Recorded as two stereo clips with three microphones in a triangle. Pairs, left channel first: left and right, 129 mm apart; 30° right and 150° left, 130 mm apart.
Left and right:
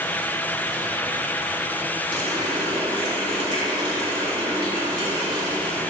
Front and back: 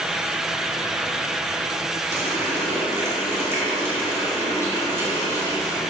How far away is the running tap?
About 2.5 m.